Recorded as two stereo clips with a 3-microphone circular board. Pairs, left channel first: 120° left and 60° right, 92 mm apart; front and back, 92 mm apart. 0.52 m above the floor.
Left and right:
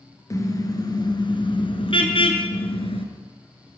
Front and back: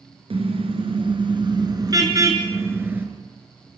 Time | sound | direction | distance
0.3 | a car horn | 175° left | 4 m